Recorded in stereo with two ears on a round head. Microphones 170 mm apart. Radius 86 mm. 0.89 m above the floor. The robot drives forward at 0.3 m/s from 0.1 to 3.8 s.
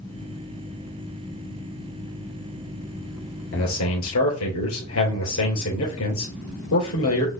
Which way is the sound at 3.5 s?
85° left.